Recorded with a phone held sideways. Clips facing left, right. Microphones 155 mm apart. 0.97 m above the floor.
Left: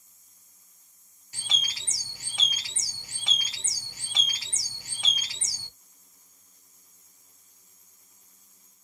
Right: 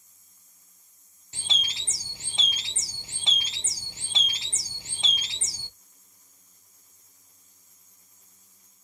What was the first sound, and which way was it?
A bird, 25° right (ahead or behind).